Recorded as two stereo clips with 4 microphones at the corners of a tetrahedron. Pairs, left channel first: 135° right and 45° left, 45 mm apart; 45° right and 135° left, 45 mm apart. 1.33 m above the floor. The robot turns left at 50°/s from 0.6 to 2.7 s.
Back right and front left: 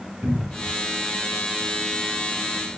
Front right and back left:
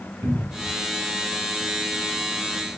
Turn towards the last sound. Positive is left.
turn(degrees=-10)